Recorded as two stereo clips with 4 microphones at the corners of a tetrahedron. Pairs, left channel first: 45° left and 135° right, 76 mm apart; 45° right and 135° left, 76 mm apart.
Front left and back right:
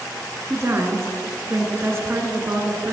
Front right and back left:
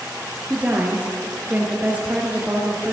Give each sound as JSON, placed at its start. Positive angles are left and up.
{"t": 0.5, "sound": "a woman speaking", "azimuth_deg": -165, "distance_m": 1.3}